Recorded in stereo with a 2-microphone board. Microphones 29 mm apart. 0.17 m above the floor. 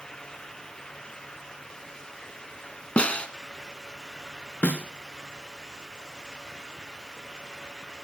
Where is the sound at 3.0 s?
45° left (ahead or behind), 1.3 m.